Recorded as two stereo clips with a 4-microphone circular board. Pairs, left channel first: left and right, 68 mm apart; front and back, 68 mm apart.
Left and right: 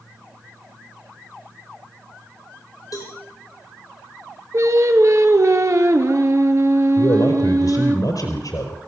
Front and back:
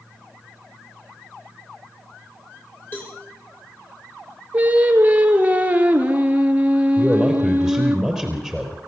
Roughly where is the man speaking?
Left.